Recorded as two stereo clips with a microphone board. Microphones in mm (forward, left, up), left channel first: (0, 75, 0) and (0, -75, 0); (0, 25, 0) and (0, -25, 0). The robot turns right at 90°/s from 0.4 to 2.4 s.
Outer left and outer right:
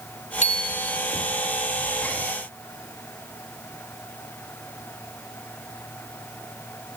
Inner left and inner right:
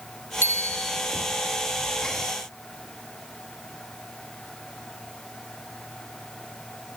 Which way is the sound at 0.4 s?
130° left.